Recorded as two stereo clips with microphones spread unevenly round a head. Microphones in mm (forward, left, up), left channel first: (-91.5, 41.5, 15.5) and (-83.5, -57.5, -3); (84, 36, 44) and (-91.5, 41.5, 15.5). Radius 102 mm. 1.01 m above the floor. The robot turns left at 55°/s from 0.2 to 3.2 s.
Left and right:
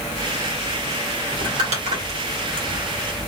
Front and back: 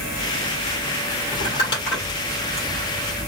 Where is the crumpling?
50° right, 2.0 m; by 3.3 s 150° right, 2.0 m.